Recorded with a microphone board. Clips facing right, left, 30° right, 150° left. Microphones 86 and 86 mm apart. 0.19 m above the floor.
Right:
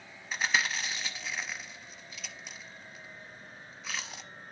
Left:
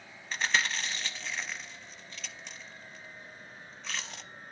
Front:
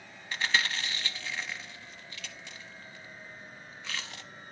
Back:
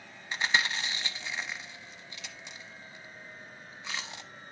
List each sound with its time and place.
0.3 s chewing: 165° right, 0.6 m